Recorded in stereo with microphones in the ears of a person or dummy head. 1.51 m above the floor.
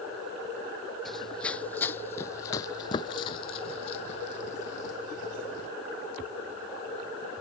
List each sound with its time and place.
1.1 s running footsteps: centre (ahead or behind); by 5.7 s 60° left (ahead or behind)